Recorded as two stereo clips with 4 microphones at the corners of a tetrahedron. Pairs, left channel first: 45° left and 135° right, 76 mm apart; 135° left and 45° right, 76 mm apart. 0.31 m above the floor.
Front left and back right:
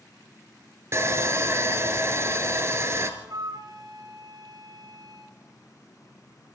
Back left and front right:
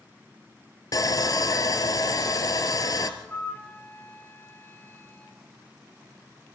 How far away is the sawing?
About 1.6 m.